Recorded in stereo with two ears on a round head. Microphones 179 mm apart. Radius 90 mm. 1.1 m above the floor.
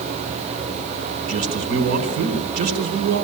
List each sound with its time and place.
1.3 s a man speaking: 60° right (ahead or behind), 4 m